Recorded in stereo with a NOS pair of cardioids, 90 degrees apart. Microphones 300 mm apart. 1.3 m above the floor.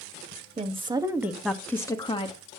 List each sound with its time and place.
0.6 s a woman speaking: 20° right, 1.6 m; by 2.4 s 20° left, 1.8 m